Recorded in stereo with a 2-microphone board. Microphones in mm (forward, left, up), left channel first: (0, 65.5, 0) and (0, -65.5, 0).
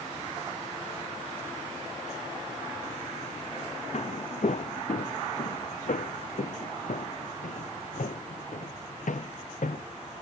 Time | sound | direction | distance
3.9 | footsteps | 55° left (ahead or behind) | ?